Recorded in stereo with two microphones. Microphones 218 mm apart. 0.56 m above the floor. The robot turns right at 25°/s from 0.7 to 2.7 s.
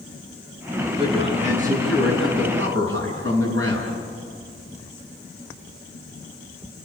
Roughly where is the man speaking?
Behind.